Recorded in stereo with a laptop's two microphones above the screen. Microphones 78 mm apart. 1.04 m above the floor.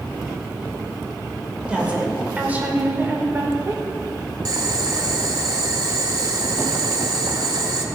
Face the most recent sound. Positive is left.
turn(degrees=-50)  # may be behind; listen again after turning